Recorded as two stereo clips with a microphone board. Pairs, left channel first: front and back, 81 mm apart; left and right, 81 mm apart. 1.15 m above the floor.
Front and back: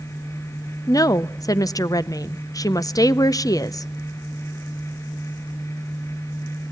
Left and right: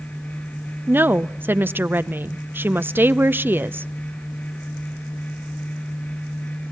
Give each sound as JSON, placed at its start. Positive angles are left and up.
{"t": 0.9, "sound": "a woman speaking", "azimuth_deg": -30, "distance_m": 0.6}